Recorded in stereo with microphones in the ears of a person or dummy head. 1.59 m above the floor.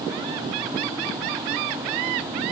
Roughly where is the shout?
No shout in this recording.